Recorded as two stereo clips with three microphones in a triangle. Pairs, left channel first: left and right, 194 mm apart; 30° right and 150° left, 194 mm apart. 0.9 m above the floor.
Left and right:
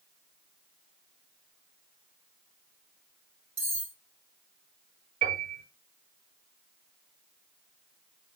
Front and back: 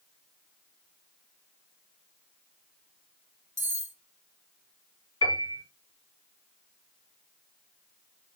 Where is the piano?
145° right, 3.5 m.